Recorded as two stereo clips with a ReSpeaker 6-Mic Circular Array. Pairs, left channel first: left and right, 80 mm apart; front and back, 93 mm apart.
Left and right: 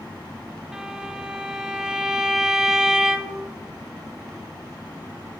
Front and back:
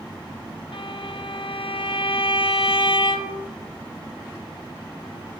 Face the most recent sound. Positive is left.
turn(degrees=-10)